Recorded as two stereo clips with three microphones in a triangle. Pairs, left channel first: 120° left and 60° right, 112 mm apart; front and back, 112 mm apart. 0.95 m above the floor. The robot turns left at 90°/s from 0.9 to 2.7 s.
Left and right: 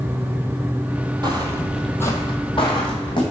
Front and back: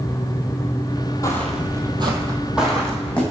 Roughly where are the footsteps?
Ahead right.